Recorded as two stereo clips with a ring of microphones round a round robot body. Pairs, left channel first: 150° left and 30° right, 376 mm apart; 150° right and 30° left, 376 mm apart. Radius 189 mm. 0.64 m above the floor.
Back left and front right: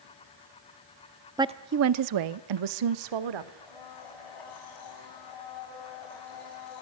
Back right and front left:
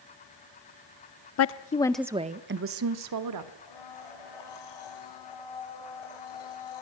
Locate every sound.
1.4 s a woman speaking: 110° right, 0.8 m; by 3.5 s 10° right, 1.7 m
3.6 s a blender: straight behind, 7.5 m